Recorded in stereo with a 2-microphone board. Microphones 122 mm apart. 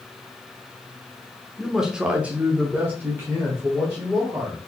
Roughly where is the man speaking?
Centre.